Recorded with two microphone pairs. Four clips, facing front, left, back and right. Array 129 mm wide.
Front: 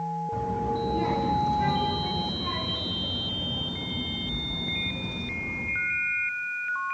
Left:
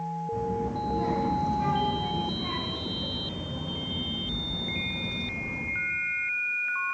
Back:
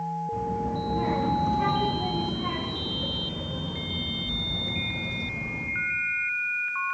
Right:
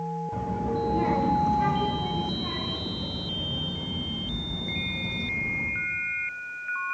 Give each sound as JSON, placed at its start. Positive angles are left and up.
{"t": 0.3, "sound": "a child speaking", "azimuth_deg": -80, "distance_m": 1.6}